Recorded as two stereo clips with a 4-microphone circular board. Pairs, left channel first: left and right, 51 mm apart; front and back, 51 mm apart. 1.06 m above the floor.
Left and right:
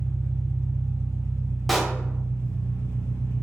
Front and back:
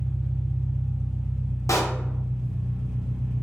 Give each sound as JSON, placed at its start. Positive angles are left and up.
{"t": 0.0, "sound": "an engine running", "azimuth_deg": 100, "distance_m": 1.3}
{"t": 1.7, "sound": "a pop", "azimuth_deg": 0, "distance_m": 0.6}